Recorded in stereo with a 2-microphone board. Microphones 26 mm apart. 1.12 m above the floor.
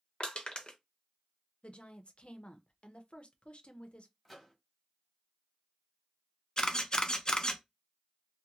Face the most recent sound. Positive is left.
turn(degrees=35)  # may be behind; listen again after turning